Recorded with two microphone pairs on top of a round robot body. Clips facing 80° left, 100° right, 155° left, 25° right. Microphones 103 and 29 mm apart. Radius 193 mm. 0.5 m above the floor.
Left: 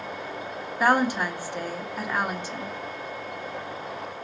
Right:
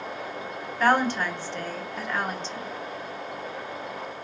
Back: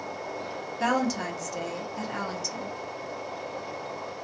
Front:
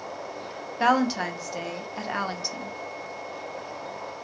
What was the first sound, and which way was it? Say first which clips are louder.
A woman speaking: even, front 4 dB; 5° left.